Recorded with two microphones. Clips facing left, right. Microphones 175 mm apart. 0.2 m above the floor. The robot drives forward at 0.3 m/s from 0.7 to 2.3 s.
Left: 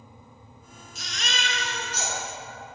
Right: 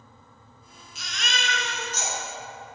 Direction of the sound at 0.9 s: 50° left (ahead or behind).